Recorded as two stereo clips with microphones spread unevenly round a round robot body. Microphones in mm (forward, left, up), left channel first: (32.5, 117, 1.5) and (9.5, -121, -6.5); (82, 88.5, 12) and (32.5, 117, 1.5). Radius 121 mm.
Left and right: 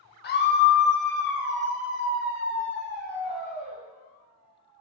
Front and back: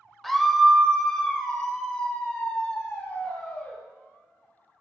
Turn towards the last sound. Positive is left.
turn(degrees=40)